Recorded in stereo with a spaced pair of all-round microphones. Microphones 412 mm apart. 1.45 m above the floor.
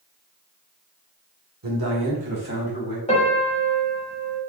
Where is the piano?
15° left (ahead or behind), 1.2 m.